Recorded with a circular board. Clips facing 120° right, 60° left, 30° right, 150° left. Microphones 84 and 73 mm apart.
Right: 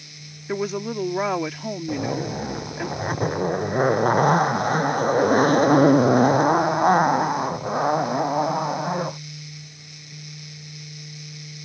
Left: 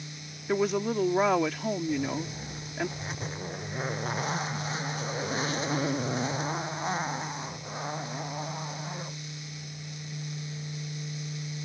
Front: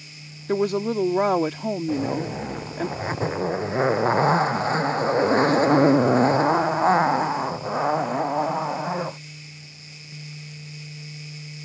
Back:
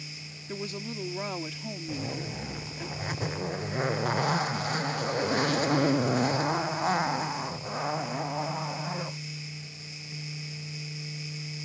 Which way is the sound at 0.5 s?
30° right.